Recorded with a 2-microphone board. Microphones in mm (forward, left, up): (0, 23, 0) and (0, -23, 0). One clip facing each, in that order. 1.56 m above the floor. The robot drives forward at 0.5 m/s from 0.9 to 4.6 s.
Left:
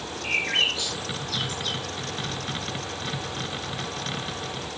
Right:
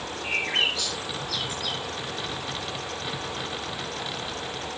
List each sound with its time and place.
0.2 s a bird: 25° left (ahead or behind), 2 m; by 1.8 s 30° left (ahead or behind), 1.8 m